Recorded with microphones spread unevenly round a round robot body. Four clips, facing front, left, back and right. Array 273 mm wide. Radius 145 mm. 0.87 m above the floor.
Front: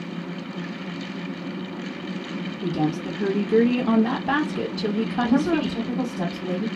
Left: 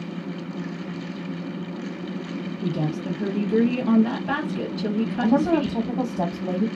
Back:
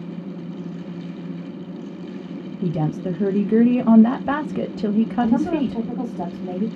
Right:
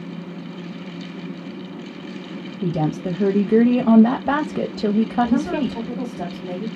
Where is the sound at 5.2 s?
105° left, 1.5 m.